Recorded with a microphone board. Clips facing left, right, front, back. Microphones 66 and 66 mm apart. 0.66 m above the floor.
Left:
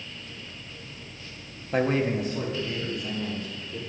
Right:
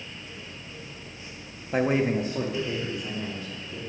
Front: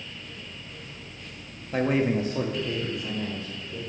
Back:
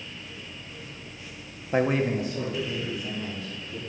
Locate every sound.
1.7 s a man speaking: 175° right, 0.5 m; by 3.8 s 20° right, 2.5 m